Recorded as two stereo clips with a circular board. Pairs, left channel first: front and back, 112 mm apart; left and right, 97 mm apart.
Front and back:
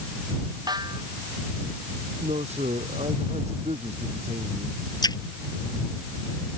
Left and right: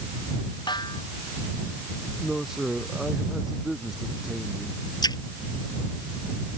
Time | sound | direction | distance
0.7 | a snare drum | 130° left | ?
2.2 | a man speaking | 175° right | ?
5.0 | a splash | 50° left | ?